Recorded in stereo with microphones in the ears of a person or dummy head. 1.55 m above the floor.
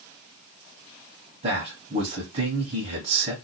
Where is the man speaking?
40° right (ahead or behind), 1.2 m.